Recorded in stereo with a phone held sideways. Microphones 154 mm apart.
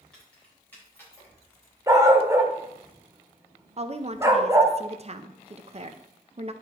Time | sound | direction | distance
0.1 | keys jangling | 5° left (ahead or behind) | 4 m
1.9 | a dog barking | 20° right (ahead or behind) | 1.2 m
3.8 | a woman speaking | 45° right (ahead or behind) | 0.6 m